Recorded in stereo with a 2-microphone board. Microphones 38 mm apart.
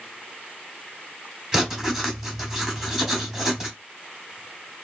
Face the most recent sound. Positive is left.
turn(degrees=-15)  # may be behind; listen again after turning